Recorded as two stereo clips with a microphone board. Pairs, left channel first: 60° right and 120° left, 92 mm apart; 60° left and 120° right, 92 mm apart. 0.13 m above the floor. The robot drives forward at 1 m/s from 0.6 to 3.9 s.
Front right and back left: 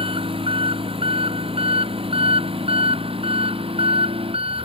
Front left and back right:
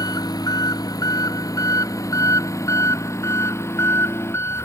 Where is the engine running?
110° left; by 4.7 s 120° left.